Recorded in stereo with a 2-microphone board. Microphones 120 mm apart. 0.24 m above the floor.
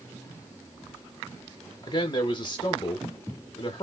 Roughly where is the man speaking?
Left.